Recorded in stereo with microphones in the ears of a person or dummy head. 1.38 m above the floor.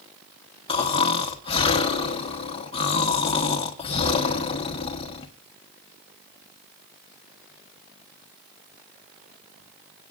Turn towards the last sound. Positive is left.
turn(degrees=25)  # may be behind; listen again after turning